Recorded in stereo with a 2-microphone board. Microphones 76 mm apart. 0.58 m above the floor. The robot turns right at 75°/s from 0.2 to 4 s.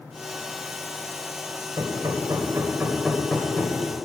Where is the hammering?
70° right (ahead or behind), 2.5 m; by 4.1 s 60° left (ahead or behind), 2.5 m.